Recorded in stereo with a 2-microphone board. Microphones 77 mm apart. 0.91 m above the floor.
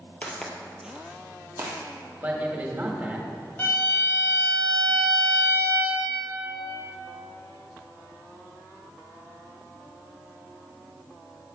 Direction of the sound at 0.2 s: 15° left (ahead or behind).